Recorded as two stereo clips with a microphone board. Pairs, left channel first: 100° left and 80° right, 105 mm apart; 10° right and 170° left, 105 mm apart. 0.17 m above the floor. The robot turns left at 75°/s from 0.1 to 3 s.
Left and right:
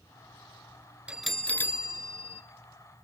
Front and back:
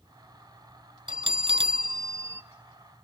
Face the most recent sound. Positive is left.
turn(degrees=60)